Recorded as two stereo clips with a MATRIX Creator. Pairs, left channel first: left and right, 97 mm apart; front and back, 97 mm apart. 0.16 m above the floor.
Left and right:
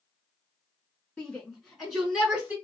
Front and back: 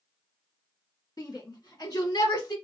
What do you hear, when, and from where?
1.2 s a shout: 10° left, 2.5 m; by 2.5 s 20° right, 2.5 m